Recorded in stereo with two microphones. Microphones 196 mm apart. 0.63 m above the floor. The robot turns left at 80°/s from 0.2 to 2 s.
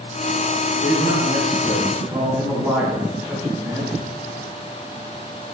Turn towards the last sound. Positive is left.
turn(degrees=-15)